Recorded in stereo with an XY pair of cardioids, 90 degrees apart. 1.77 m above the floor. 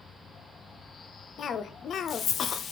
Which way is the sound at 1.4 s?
70° left.